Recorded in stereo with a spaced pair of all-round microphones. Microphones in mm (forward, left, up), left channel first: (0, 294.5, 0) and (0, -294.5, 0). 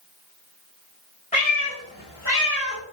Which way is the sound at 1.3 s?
10° left (ahead or behind).